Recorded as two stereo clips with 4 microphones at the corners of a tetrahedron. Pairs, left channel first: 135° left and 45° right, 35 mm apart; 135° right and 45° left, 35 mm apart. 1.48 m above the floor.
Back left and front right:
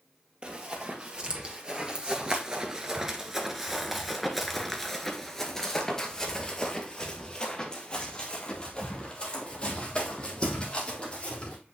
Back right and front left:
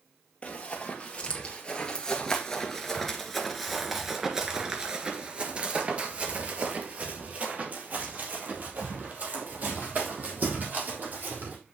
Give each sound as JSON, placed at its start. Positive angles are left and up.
{"t": 0.4, "sound": "running footsteps", "azimuth_deg": -95, "distance_m": 2.5}